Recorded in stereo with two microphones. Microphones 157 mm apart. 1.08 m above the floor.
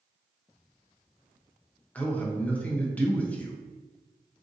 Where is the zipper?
I don't hear a zipper.